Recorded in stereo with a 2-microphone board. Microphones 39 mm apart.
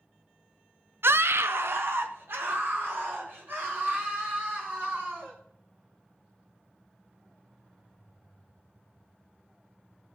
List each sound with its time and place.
1.0 s a scream: 70° right (ahead or behind), 0.5 m; by 5.3 s 60° right (ahead or behind), 5.5 m